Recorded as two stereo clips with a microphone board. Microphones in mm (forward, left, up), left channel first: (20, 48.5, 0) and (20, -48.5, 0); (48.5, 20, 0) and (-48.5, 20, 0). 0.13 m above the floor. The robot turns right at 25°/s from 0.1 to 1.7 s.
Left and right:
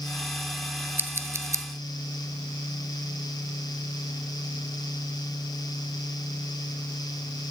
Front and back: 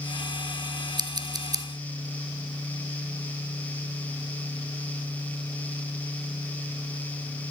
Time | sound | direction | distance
1.0 | scissors | 155° right | 0.6 m